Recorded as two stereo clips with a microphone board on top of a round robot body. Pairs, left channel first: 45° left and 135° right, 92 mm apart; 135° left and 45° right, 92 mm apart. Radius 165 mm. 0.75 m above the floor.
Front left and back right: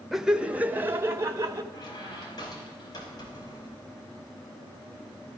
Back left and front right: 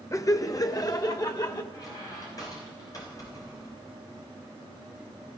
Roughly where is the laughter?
Behind left.